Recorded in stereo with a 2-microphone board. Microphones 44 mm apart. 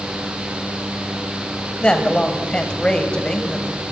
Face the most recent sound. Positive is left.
turn(degrees=25)  # may be behind; listen again after turning